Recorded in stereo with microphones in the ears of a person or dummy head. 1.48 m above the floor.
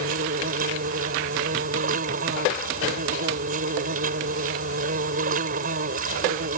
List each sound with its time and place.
0.0 s an insect: 45° right (ahead or behind)